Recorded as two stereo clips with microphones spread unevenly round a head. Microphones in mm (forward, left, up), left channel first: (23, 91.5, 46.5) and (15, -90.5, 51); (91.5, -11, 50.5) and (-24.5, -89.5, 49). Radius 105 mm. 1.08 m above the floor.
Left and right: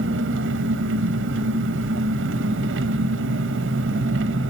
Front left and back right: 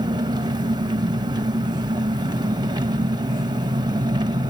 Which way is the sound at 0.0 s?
85° right.